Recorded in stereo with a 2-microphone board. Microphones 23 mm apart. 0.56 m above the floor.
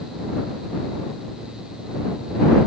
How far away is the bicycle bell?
No bicycle bell in this recording.